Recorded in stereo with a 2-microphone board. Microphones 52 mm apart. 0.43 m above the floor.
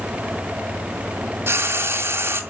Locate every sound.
1.5 s frying: 55° right (ahead or behind), 2.5 m